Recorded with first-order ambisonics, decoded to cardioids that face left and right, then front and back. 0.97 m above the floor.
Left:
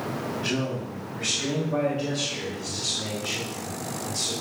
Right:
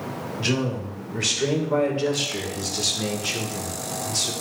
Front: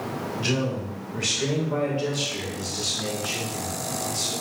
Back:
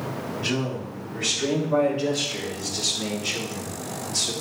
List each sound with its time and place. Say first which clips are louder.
0.4 s a man speaking: right 5 dB, front 1 dB; 70° right, 3.5 m; by 4.3 s 115° right, 2 m